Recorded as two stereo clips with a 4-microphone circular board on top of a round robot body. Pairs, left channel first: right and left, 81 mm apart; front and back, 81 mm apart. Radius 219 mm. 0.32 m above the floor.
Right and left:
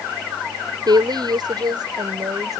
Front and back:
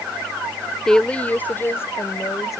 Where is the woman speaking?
80° left; by 2.6 s 50° left.